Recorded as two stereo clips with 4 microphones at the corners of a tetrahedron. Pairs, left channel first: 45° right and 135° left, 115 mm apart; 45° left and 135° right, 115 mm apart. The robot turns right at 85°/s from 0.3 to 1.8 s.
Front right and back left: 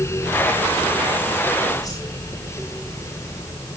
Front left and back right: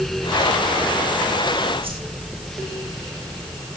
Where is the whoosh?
100° right, 5.5 m.